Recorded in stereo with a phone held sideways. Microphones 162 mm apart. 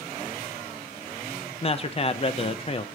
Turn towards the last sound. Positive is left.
turn(degrees=40)  # may be behind; listen again after turning